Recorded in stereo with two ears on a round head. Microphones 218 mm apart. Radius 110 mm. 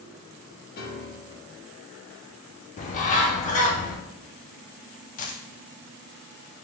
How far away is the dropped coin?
About 0.6 m.